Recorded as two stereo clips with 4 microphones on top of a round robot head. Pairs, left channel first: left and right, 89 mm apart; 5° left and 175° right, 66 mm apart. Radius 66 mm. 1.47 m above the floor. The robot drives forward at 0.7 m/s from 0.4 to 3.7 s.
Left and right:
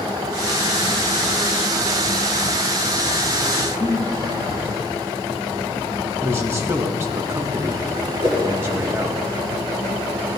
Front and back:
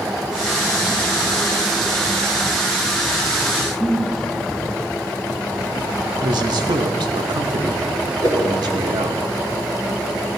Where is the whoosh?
135° right, 1.6 m.